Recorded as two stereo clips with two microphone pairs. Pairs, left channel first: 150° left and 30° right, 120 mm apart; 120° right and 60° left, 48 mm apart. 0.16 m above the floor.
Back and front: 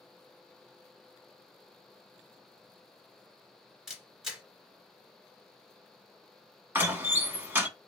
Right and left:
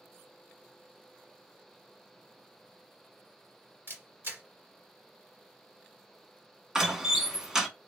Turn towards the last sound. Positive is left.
turn(degrees=-5)